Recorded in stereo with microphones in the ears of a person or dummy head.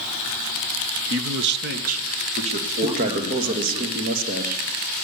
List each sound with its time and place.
1.1 s a man speaking: 60° right (ahead or behind), 0.8 m; by 3.8 s 25° right (ahead or behind), 3.5 m
2.8 s a man speaking: 50° right (ahead or behind), 1.7 m